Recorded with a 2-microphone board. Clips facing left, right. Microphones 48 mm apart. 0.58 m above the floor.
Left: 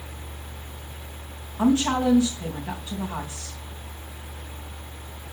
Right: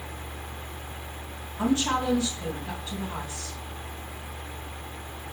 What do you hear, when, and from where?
1.6 s a woman speaking: 30° left (ahead or behind), 3.5 m